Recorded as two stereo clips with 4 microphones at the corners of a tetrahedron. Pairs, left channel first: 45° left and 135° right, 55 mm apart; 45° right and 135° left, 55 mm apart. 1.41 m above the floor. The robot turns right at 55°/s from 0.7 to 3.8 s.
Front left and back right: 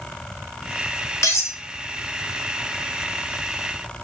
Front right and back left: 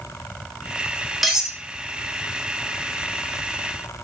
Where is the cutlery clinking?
45° left, 0.8 m; by 1.6 s 65° left, 0.8 m.